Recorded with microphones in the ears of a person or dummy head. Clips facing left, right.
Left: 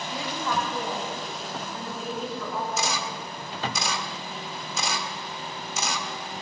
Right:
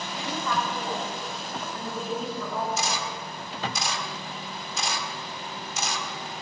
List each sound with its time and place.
0.1 s a woman speaking: 15° left (ahead or behind), 4.5 m; by 2.7 s 5° right (ahead or behind), 4 m
2.8 s a camera shutter: 75° left (ahead or behind), 1.8 m